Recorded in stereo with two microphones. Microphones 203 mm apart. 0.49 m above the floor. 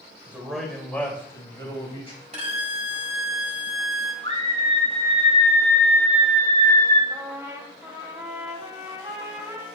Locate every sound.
0.3 s a man speaking: 10° right (ahead or behind), 2 m; by 2.2 s 30° left (ahead or behind), 3 m
2.3 s a violin: 35° right (ahead or behind), 1.7 m
4.2 s a scream: 35° left (ahead or behind), 3.5 m
7.1 s a trumpet: 20° right (ahead or behind), 1.9 m